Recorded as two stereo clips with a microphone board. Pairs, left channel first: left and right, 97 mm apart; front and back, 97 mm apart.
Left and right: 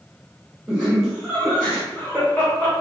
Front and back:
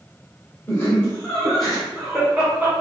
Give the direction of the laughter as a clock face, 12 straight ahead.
1 o'clock.